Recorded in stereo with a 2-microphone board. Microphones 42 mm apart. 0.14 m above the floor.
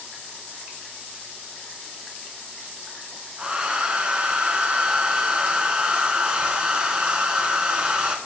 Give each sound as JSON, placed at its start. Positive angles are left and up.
{"t": 3.4, "sound": "a hair dryer", "side_deg": -20, "distance_m": 1.0}